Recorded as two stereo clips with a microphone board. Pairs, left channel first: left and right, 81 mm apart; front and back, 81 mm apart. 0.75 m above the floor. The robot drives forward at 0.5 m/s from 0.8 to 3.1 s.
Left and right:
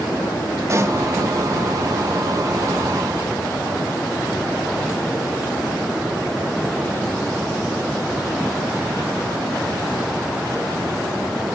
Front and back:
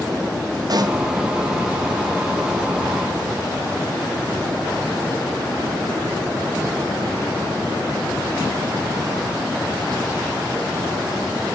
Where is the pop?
145° right, 0.6 m; by 1.0 s 150° right, 0.7 m.